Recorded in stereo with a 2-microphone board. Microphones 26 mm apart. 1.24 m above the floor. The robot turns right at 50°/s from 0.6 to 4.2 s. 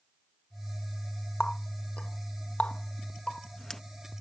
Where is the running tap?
40° left (ahead or behind); by 3.8 s 15° left (ahead or behind).